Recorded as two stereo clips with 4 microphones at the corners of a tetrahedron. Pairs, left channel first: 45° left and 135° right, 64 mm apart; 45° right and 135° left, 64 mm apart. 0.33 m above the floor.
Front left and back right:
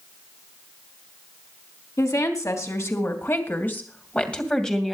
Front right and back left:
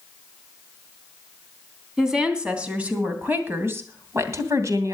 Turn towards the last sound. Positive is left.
turn(degrees=130)